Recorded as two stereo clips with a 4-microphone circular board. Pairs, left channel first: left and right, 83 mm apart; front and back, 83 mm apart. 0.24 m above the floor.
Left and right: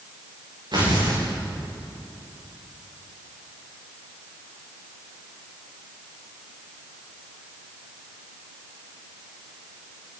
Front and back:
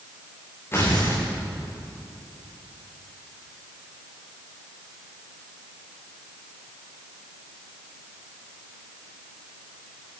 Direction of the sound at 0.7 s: 60° right.